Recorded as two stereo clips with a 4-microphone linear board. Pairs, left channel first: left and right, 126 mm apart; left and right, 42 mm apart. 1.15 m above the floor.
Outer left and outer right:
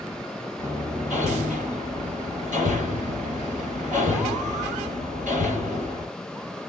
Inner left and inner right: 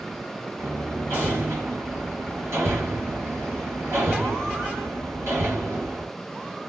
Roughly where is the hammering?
Right.